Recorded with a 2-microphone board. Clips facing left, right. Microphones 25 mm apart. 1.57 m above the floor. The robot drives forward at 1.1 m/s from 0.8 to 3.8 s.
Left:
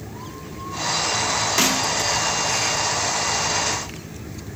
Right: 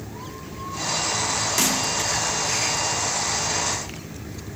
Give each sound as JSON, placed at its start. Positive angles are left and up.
{"t": 1.6, "sound": "a snare drum", "side_deg": 25, "distance_m": 1.2}